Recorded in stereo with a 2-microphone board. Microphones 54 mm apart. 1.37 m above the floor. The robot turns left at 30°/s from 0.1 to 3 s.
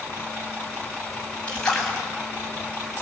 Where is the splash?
20° left (ahead or behind), 7 m; by 2.0 s 5° left (ahead or behind), 7 m.